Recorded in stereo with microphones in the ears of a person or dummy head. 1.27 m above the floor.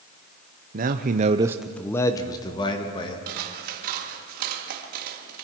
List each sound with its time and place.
0.7 s a man speaking: 45° right (ahead or behind), 0.9 m; by 3.2 s 30° left (ahead or behind), 2 m
3.3 s scissors: 50° right (ahead or behind), 1.9 m